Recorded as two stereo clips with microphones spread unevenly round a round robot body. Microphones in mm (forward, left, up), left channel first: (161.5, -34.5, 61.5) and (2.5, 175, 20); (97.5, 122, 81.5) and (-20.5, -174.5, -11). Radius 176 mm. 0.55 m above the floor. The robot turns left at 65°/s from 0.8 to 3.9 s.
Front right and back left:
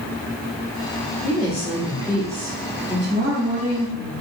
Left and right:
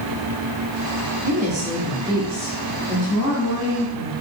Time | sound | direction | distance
1.2 | a woman speaking | 100° right | 1.3 m